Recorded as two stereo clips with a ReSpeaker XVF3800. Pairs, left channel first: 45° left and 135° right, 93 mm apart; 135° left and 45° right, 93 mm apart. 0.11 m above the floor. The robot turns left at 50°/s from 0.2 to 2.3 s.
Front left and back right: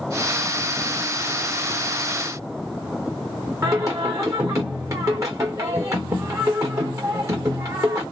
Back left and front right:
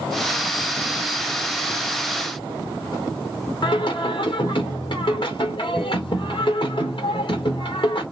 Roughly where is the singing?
Behind.